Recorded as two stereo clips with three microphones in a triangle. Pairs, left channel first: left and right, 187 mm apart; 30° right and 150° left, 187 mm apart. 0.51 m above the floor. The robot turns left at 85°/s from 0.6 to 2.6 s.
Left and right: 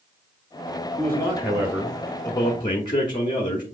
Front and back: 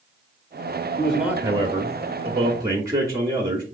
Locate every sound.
1.0 s a man speaking: 115° right, 0.9 m; by 3.6 s 110° left, 0.9 m